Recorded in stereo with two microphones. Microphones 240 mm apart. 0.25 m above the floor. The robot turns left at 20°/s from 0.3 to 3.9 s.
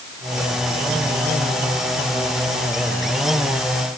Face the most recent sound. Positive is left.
No sound to turn to.